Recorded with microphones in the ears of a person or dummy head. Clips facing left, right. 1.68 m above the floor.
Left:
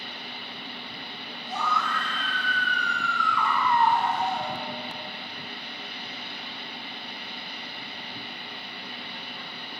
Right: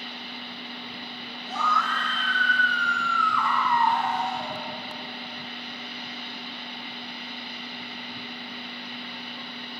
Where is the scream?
15° left (ahead or behind), 5.5 m; by 4.6 s 20° left (ahead or behind), 7 m.